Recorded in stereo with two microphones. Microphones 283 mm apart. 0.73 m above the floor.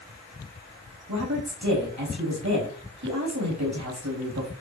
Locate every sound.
1.1 s a woman speaking: 80° right, 3.5 m